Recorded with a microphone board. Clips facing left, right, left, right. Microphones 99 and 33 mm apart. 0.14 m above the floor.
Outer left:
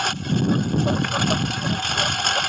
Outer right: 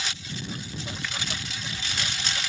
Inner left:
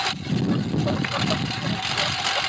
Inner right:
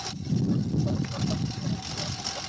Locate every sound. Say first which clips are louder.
0.0 s a lawn mower: outer left 14 dB, inner left 5 dB; 55° left (ahead or behind)